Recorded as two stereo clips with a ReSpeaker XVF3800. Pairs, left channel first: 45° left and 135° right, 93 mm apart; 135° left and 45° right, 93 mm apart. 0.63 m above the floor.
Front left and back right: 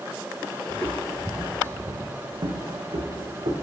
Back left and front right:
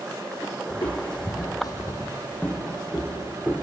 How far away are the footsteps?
About 1.3 m.